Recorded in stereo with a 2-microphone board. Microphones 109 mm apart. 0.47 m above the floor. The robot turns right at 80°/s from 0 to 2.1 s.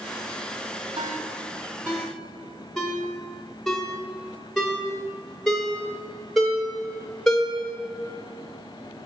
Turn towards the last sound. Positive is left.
turn(degrees=5)  # may be behind; listen again after turning